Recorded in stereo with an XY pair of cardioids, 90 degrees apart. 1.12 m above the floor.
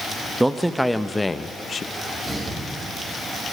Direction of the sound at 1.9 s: 40° right.